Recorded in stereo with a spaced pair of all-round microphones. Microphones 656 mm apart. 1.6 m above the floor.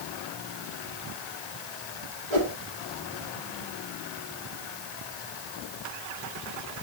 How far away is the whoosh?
About 3 m.